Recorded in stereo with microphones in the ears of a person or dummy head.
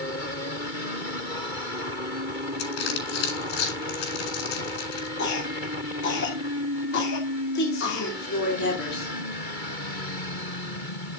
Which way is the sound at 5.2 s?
70° left (ahead or behind).